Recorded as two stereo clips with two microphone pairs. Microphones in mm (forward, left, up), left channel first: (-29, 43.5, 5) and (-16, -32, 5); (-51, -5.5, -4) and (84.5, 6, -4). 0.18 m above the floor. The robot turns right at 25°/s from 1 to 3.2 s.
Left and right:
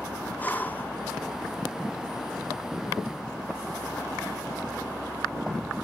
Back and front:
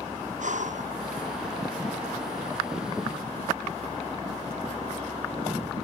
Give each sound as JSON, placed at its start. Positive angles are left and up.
{"t": 0.4, "sound": "breathing", "azimuth_deg": 30}